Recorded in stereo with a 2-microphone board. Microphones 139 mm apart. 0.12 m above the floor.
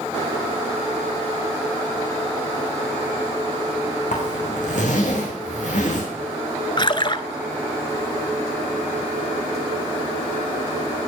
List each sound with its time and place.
4.1 s a zipper: 60° left (ahead or behind), 4 m
6.8 s a splash: 35° left (ahead or behind), 0.6 m